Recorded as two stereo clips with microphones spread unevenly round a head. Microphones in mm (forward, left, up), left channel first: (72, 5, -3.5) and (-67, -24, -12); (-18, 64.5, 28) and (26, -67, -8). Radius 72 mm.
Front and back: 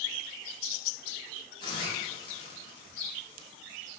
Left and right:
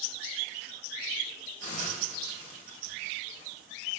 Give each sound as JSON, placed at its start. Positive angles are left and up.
{"t": 1.6, "sound": "a hiss", "azimuth_deg": 70, "distance_m": 3.5}